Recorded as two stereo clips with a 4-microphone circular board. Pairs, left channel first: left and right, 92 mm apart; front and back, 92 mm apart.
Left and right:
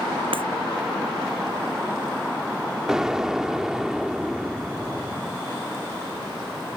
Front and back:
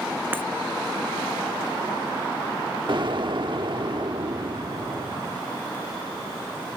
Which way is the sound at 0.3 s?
110° right.